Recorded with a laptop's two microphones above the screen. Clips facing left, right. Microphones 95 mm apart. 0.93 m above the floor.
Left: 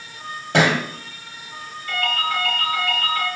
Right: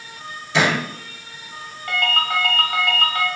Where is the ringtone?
70° right (ahead or behind), 2.5 m.